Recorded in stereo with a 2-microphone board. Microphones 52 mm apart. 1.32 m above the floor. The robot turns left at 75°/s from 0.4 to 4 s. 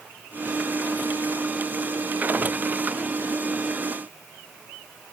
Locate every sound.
Only background noise.